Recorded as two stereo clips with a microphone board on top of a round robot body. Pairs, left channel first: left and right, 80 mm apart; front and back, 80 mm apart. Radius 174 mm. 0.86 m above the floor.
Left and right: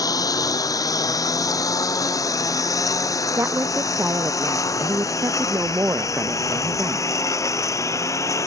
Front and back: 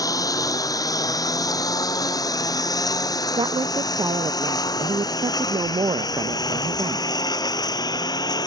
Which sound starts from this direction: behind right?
A woman speaking, at 3.4 s.